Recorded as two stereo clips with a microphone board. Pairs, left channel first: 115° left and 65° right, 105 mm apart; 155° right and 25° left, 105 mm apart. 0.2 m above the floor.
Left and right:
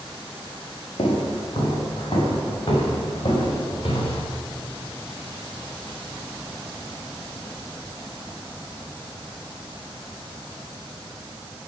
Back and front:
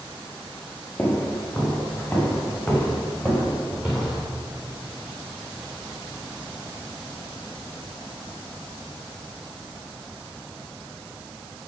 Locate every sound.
1.0 s footsteps: 130° left, 7 m; by 4.3 s 110° left, 8 m